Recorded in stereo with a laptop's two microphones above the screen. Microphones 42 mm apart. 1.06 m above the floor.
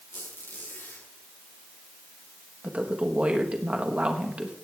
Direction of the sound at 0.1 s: 60° left (ahead or behind).